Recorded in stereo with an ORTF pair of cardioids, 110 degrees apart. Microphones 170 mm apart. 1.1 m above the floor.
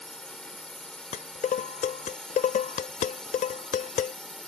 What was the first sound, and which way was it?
A drone, 5° left.